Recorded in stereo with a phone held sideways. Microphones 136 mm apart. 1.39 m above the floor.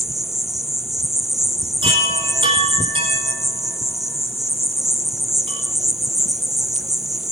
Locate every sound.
0.0 s an insect: centre (ahead or behind), 0.7 m
1.8 s a chime: 40° right (ahead or behind), 5.5 m